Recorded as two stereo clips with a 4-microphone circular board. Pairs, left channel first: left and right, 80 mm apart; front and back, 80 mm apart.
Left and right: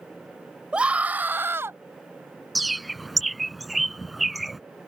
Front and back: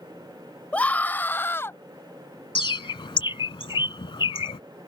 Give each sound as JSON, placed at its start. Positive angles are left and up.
{"t": 0.7, "sound": "a scream", "azimuth_deg": -40}
{"t": 2.5, "sound": "a bird", "azimuth_deg": 0}